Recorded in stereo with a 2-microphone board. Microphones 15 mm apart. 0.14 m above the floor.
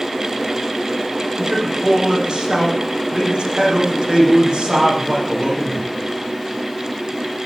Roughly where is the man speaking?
Right.